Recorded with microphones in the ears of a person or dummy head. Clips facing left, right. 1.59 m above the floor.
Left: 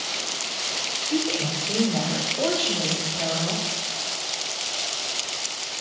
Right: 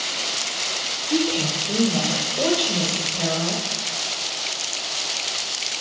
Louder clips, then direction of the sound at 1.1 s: Right 3 dB; 15° right (ahead or behind).